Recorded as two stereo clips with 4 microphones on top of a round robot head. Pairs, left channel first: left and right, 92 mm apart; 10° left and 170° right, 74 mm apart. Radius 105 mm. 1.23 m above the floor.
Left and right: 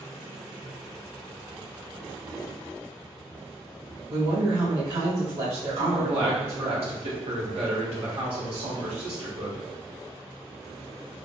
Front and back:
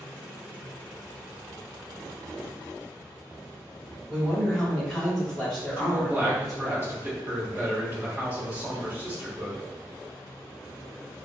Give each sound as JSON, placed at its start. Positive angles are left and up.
{"t": 4.1, "sound": "a woman speaking", "azimuth_deg": -75, "distance_m": 1.8}
{"t": 5.8, "sound": "a man speaking", "azimuth_deg": -110, "distance_m": 1.1}